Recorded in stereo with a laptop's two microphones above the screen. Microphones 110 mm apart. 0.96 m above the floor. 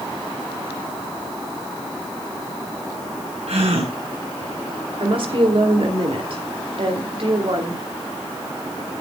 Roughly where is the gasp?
Right.